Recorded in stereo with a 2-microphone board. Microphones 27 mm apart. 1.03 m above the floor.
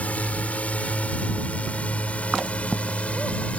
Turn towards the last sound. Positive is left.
turn(degrees=50)  # may be behind; listen again after turning